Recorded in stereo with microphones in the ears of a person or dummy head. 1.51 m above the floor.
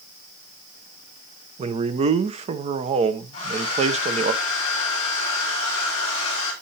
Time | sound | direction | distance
1.6 | a man speaking | 30° right (ahead or behind) | 0.7 m
3.3 | a hair dryer | 35° left (ahead or behind) | 3.5 m